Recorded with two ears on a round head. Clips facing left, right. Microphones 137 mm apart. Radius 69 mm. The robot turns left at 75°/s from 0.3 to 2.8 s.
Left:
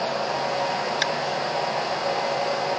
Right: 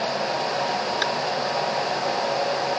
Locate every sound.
1.0 s tapping: 25° left (ahead or behind); by 1.1 s 15° left (ahead or behind)